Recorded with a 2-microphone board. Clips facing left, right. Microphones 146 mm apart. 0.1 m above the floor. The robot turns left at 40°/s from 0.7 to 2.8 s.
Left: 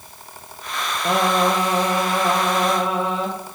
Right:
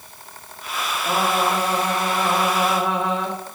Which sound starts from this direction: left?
Singing, at 1.1 s.